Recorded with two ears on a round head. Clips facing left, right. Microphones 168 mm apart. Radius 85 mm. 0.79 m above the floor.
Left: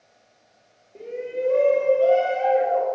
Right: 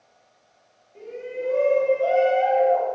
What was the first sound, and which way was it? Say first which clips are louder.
A shout: left 3 dB; 45° left (ahead or behind).